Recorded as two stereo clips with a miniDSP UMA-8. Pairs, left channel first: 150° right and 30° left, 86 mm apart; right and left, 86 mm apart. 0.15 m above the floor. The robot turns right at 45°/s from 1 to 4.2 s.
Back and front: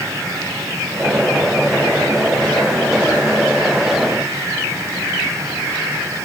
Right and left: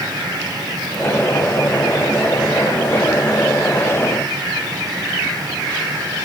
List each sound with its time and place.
Only background noise.